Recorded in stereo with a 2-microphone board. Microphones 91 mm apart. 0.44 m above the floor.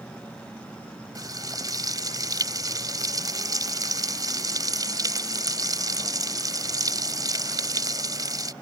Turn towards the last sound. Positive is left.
turn(degrees=-45)  # may be behind; listen again after turning